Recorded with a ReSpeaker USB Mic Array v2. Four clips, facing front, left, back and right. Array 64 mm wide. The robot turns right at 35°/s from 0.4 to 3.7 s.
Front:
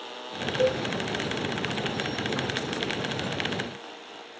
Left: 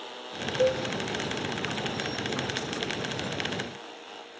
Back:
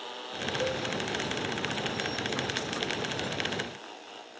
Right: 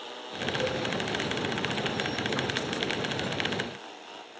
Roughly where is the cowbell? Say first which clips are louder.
Left 8 dB, front 9 dB; ahead left.